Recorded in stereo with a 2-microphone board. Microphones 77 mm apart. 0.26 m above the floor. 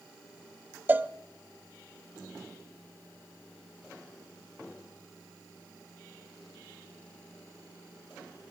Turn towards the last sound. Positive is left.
turn(degrees=-25)  # may be behind; listen again after turning